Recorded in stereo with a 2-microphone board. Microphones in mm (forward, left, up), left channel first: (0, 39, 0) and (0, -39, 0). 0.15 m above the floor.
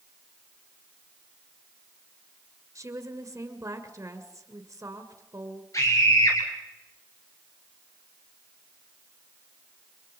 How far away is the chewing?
No chewing in this recording.